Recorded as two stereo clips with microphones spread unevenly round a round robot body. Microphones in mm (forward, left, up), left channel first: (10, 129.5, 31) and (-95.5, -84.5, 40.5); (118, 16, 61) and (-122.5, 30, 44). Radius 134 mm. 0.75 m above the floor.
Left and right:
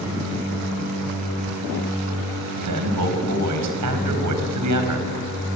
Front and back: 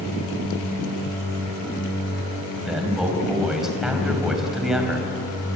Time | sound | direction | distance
2.6 | a man speaking | 95° right | 4.5 m